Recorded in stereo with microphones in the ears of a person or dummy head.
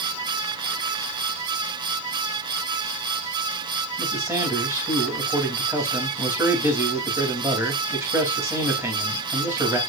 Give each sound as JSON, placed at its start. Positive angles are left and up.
{"t": 4.0, "sound": "a man speaking", "side_deg": -15, "distance_m": 3.5}